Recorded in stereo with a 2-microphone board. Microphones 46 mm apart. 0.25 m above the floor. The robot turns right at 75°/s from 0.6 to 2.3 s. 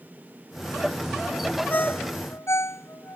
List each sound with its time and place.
1.7 s a ringtone: 35° left (ahead or behind); by 3.2 s 80° left